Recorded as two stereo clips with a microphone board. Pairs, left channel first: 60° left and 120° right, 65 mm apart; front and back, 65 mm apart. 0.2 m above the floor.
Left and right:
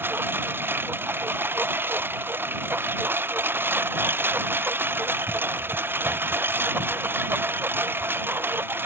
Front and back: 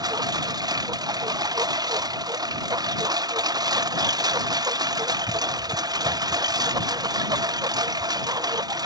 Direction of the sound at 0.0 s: Straight behind.